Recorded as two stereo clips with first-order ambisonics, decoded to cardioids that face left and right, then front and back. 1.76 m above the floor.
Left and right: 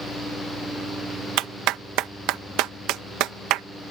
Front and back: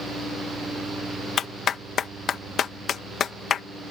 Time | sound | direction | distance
1.4 | a clap | 60° right | ?